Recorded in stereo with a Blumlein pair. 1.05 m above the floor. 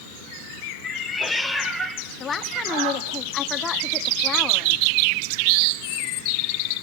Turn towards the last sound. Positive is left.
turn(degrees=20)